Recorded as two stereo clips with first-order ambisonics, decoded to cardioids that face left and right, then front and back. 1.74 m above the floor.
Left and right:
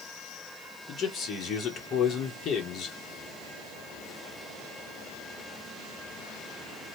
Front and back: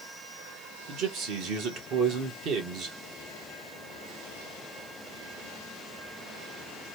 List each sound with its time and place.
0.9 s a man speaking: 145° left, 1.3 m